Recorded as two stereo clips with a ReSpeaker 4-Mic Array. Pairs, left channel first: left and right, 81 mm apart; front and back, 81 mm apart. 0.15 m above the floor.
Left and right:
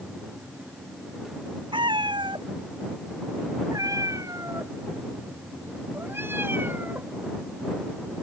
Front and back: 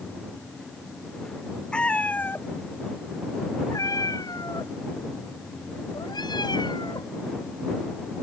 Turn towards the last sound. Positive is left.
turn(degrees=-25)